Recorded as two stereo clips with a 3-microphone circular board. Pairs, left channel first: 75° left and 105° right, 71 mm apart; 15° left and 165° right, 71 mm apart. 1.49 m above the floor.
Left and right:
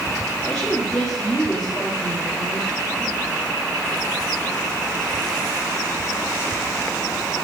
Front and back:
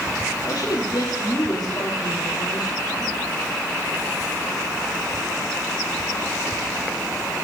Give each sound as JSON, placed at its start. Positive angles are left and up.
{"t": 0.4, "sound": "a woman speaking", "azimuth_deg": -5, "distance_m": 3.5}